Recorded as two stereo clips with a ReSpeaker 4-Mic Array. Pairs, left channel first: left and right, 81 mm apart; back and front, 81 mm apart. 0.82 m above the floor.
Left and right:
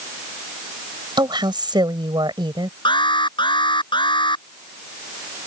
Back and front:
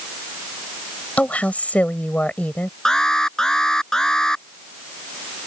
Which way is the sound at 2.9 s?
95° left.